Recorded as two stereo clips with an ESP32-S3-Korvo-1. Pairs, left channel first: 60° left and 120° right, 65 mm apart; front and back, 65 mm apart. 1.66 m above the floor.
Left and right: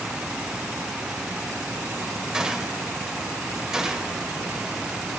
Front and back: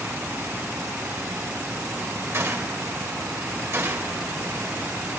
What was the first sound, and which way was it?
A gunshot, 165° left.